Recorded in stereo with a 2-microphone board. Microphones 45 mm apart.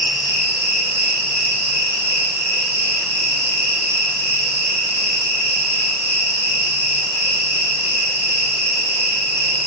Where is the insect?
75° right (ahead or behind), 7.5 m.